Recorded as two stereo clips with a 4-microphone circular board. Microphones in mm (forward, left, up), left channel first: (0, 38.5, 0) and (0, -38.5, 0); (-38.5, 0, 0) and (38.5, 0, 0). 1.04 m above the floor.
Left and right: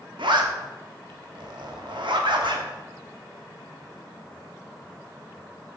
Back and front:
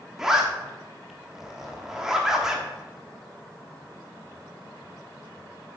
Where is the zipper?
85° right, 1.5 m.